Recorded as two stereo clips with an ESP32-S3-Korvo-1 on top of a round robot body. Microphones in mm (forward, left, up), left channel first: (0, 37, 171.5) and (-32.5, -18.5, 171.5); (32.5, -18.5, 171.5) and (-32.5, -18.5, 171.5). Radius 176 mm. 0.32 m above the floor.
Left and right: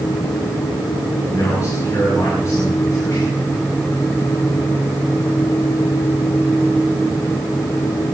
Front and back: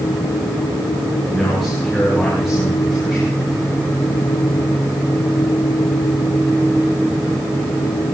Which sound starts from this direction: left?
A man speaking, at 1.2 s.